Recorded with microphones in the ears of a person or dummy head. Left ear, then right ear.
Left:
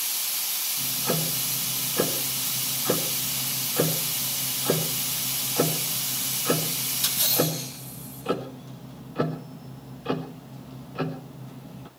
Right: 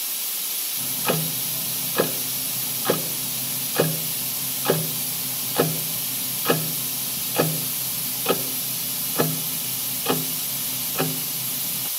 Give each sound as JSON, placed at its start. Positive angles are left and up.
{"t": 0.8, "sound": "ticking", "side_deg": -40, "distance_m": 1.1}